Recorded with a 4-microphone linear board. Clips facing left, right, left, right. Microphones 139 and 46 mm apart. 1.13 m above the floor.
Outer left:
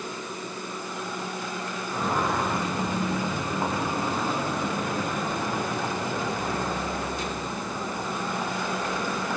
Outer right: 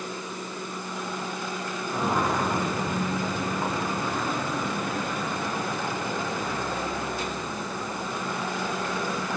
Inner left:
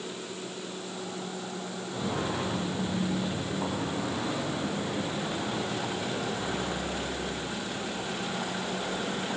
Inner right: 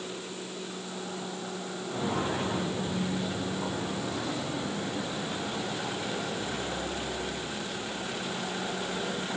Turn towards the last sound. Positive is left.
turn(degrees=50)  # may be behind; listen again after turning